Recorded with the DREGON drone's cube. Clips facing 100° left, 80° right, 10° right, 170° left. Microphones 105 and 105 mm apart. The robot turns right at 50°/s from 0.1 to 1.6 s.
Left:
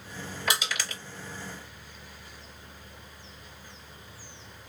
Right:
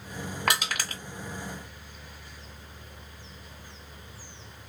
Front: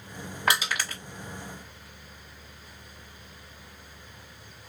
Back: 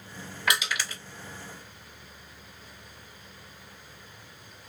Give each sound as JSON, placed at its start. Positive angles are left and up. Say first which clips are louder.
{"t": 0.5, "sound": "crushing", "louder": "right 2 dB, front 2 dB", "azimuth_deg": -65, "distance_m": 1.7}